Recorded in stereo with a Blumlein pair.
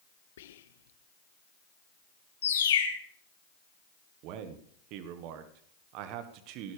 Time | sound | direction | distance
0.4 | whispering | 60° left | 1.0 m
2.4 | a bird | 65° left | 1.8 m
4.2 | a man speaking | 40° right | 1.5 m